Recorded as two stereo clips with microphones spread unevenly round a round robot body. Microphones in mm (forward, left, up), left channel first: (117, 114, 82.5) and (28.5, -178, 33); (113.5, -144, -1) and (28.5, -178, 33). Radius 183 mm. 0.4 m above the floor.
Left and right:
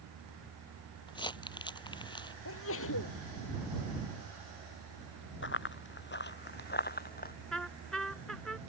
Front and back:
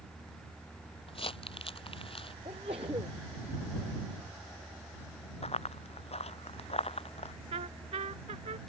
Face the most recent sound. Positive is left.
turn(degrees=160)